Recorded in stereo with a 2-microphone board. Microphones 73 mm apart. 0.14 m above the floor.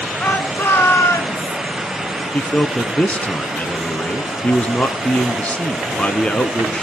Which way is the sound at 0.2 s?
20° left (ahead or behind).